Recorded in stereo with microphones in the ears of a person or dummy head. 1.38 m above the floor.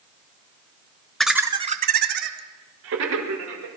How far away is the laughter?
About 0.7 m.